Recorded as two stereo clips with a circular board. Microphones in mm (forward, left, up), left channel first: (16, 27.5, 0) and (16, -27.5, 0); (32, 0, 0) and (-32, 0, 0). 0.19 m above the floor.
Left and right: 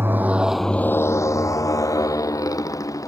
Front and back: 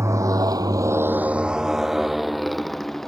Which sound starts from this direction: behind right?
A motorcycle, at 0.0 s.